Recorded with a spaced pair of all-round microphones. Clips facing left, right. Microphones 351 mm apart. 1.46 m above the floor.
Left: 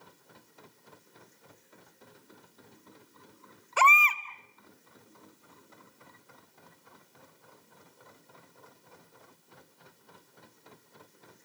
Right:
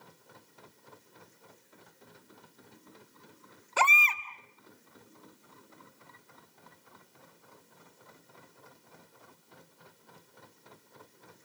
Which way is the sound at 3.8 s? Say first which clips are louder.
Left 2 dB; 50° right (ahead or behind).